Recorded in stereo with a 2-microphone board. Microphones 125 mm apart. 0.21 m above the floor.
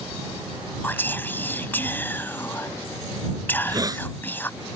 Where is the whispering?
15° left (ahead or behind).